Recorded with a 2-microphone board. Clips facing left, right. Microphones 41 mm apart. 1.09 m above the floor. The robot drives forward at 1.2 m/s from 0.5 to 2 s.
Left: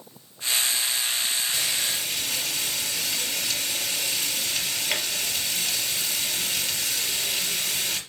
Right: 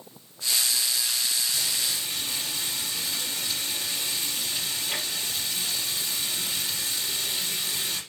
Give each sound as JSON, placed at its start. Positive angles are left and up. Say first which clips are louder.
{"t": 1.5, "sound": "frying", "louder": "left 2 dB", "side_deg": 75, "distance_m": 3.5}